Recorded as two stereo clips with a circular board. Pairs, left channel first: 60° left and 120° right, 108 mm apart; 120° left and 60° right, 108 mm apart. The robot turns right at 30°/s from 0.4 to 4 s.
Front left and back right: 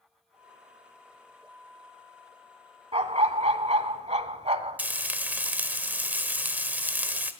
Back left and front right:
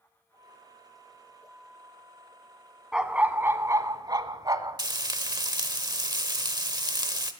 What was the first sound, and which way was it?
A dog barking, 145° right.